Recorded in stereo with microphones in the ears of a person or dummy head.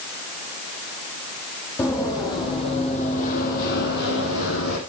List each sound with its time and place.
1.8 s running footsteps: 20° left (ahead or behind), 3.5 m; by 4.8 s 70° left (ahead or behind), 3.5 m